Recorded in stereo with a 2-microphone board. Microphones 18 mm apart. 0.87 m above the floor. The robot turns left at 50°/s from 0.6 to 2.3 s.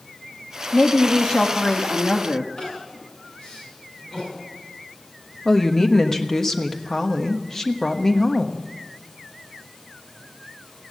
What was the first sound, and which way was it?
A woman speaking, 150° left.